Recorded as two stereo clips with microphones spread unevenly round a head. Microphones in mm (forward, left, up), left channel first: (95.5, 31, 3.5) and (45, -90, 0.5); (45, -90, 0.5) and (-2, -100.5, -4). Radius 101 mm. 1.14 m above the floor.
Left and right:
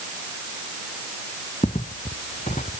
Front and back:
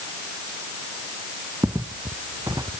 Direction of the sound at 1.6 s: 130° left.